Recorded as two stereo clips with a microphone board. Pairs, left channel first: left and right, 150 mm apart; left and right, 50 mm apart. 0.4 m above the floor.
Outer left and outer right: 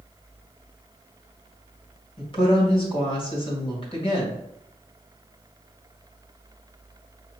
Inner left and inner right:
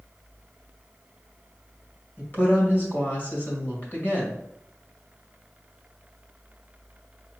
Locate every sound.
2.2 s a woman speaking: 35° left (ahead or behind), 2 m